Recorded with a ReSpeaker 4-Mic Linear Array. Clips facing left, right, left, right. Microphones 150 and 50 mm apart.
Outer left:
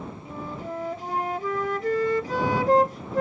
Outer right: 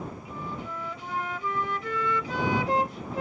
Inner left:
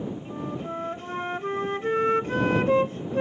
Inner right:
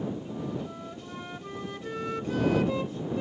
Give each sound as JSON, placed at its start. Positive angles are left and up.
{"t": 0.2, "sound": "a flute", "side_deg": 45}